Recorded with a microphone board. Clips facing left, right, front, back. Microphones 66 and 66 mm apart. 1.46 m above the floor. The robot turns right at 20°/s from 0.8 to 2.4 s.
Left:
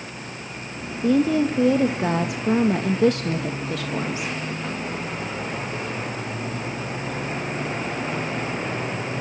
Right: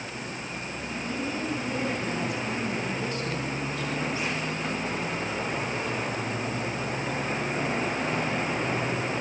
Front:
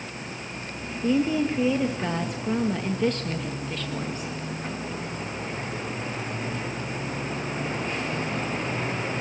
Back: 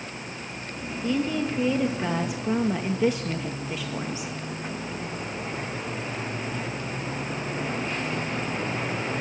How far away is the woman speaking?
About 1.9 m.